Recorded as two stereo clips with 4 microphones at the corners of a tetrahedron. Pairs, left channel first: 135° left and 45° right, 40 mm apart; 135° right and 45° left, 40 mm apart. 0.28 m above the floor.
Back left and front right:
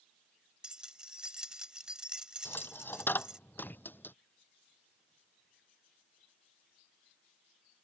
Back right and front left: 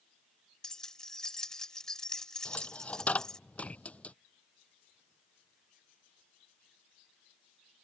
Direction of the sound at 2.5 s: 170° left.